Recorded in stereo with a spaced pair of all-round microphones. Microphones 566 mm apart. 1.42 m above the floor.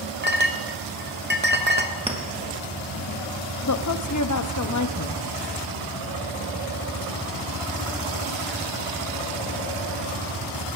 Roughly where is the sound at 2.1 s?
Centre.